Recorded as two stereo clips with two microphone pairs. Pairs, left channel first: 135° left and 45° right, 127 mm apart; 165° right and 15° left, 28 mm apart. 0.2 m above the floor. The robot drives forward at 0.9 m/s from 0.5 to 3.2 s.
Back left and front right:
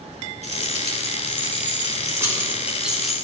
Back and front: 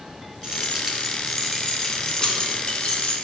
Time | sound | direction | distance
0.4 | keys jangling | 45° right | 1.9 m